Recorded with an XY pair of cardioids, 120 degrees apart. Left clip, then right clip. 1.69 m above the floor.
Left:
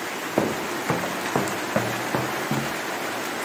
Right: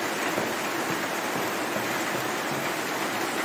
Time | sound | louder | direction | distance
0.4 | footsteps | left 2 dB | 45° left | ?